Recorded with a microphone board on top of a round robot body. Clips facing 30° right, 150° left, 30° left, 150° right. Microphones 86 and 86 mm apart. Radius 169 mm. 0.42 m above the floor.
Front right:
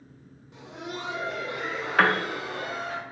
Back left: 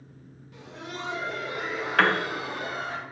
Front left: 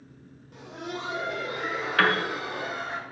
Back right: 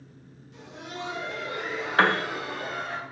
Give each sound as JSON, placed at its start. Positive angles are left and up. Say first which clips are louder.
{"t": 0.5, "sound": "laughter", "louder": "front right 2 dB, front left 3 dB", "azimuth_deg": 30, "distance_m": 1.2}
{"t": 2.0, "sound": "a piano", "louder": "front right 1 dB, back right 1 dB", "azimuth_deg": -110, "distance_m": 0.6}